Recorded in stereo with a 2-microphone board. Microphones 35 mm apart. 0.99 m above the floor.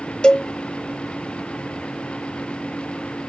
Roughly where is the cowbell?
Left.